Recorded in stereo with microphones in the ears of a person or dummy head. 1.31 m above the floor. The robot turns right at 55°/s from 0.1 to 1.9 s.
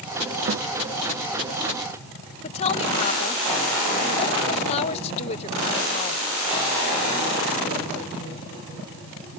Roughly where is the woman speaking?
Left.